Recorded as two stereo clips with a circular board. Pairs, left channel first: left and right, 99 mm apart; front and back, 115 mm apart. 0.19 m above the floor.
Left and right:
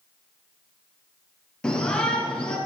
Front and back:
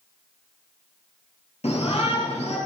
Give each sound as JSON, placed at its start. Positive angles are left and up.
{"t": 1.6, "sound": "a shout", "azimuth_deg": 10, "distance_m": 4.5}